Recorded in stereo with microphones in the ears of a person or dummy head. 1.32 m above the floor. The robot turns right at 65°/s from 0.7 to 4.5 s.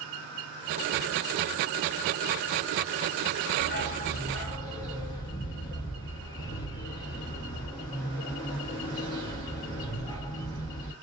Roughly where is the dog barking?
Left.